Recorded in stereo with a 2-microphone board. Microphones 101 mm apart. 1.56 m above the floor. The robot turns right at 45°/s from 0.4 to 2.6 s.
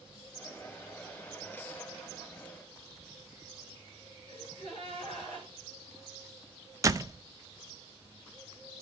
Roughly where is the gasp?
Left.